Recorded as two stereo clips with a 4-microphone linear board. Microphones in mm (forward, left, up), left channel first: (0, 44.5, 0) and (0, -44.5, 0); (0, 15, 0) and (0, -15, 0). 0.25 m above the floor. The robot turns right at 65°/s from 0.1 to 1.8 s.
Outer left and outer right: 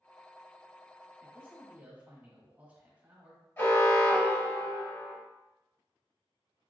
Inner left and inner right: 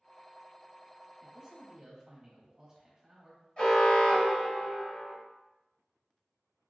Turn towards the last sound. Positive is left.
turn(degrees=30)  # may be behind; listen again after turning